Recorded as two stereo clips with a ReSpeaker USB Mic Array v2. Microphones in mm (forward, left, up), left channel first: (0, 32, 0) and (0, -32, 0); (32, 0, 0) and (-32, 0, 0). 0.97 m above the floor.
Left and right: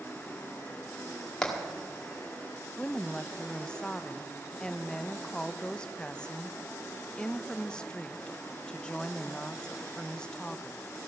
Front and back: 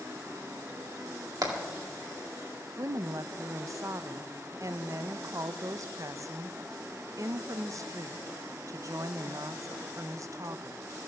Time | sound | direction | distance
1.4 | hammering | 170° left | 2 m
2.8 | a woman speaking | 165° left | 0.5 m